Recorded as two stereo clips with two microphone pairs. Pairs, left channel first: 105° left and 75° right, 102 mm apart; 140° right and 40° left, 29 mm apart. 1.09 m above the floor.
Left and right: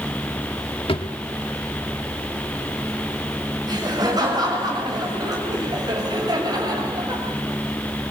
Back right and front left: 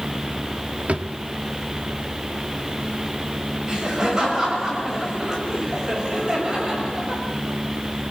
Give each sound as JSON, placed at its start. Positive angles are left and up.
{"t": 0.9, "sound": "a drawer", "azimuth_deg": 80, "distance_m": 1.2}
{"t": 3.7, "sound": "laughter", "azimuth_deg": -25, "distance_m": 6.0}